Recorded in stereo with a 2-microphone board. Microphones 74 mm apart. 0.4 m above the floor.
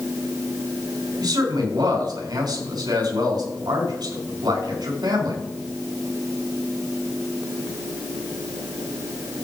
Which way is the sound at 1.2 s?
75° right (ahead or behind).